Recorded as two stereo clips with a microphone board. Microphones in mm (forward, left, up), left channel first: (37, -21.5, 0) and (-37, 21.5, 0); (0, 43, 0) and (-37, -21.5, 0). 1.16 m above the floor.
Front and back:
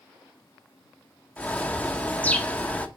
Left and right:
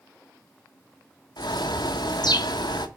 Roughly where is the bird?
Ahead left.